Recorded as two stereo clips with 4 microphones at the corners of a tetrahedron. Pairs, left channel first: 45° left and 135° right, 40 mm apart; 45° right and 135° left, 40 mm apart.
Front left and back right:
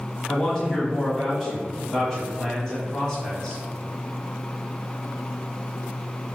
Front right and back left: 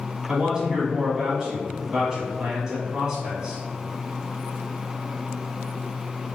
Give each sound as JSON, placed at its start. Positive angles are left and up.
{"t": 0.3, "sound": "a man speaking", "azimuth_deg": 90, "distance_m": 1.2}